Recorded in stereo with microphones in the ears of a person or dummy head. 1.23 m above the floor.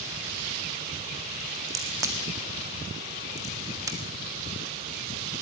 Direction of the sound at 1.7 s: 15° right (ahead or behind).